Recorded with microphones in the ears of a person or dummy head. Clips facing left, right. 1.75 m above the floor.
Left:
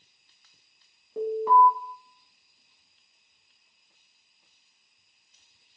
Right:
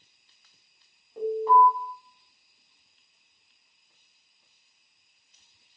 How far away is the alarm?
About 1.0 m.